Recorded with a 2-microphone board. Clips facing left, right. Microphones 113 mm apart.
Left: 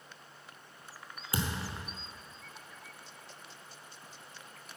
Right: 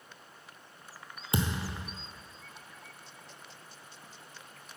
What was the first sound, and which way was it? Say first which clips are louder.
A thud: right 4 dB; 20° right (ahead or behind).